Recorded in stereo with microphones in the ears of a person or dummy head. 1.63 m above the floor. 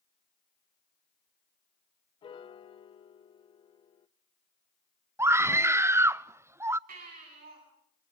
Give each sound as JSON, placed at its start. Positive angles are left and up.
{"t": 2.2, "sound": "a piano", "side_deg": 35, "distance_m": 0.6}
{"t": 5.2, "sound": "a scream", "side_deg": -15, "distance_m": 0.6}
{"t": 6.9, "sound": "a baby crying", "side_deg": -60, "distance_m": 9.5}